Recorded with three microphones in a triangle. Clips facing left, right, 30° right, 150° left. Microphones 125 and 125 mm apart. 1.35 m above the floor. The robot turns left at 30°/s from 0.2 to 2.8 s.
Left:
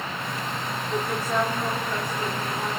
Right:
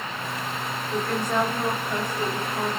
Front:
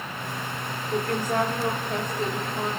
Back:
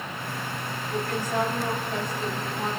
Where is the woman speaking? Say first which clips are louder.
Right 1 dB, front 3 dB; 15° left, 3.5 m; by 2.7 s 40° right, 3.5 m.